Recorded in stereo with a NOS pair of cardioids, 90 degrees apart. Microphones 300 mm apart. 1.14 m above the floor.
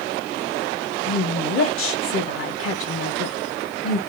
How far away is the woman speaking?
About 1.0 m.